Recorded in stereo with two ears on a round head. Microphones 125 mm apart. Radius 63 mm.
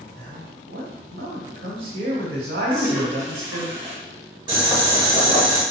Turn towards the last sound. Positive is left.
turn(degrees=-30)  # may be behind; listen again after turning